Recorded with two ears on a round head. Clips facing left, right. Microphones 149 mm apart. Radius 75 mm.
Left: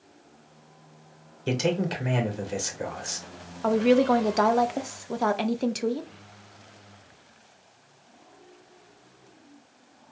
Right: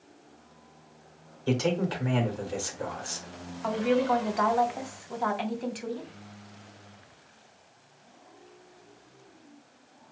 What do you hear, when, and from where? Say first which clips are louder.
1.5 s a man speaking: left 1 dB; 20° left (ahead or behind), 1.7 m
3.6 s a woman speaking: left 5 dB; 55° left (ahead or behind), 0.8 m